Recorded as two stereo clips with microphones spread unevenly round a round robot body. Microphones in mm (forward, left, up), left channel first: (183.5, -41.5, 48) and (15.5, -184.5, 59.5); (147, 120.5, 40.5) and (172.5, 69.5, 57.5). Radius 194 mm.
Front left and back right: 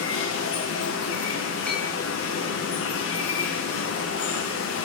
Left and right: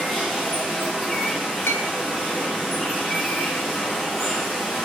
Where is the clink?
125° left, 1.2 m.